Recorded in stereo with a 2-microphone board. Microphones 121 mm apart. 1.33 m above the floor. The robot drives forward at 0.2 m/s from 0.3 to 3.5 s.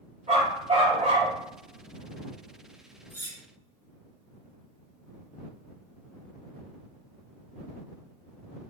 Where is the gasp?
I don't hear a gasp.